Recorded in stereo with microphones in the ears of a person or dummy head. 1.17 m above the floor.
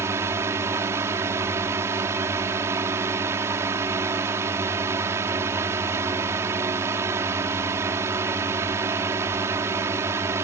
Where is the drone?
15° right (ahead or behind).